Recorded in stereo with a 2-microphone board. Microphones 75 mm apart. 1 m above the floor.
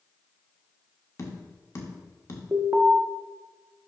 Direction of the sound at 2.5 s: 35° right (ahead or behind).